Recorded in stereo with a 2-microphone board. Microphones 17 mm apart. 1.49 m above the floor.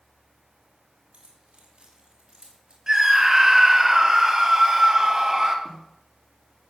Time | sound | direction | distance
1.1 | keys jangling | 85° right | 6 m
2.9 | a scream | 35° right (ahead or behind) | 3 m
5.7 | a snare drum | 55° left (ahead or behind) | 3 m